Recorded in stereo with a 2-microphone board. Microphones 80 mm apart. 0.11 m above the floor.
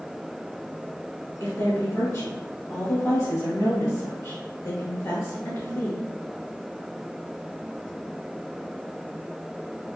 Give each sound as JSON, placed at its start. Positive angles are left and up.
{"t": 1.4, "sound": "a woman speaking", "side_deg": 40, "distance_m": 1.9}